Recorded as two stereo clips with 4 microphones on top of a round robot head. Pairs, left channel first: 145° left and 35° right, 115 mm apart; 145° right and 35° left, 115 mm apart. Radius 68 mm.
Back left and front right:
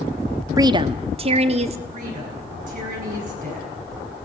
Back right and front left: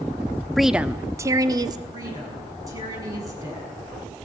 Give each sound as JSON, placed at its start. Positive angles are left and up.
{"t": 0.6, "sound": "a woman speaking", "azimuth_deg": -60, "distance_m": 0.7}
{"t": 1.9, "sound": "a woman speaking", "azimuth_deg": -25, "distance_m": 6.5}